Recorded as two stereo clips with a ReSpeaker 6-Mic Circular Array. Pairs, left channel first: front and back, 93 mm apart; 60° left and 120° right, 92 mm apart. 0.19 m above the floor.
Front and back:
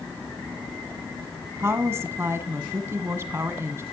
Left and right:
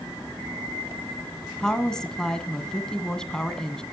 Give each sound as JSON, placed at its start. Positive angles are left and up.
{"t": 1.6, "sound": "a woman speaking", "azimuth_deg": 135, "distance_m": 1.7}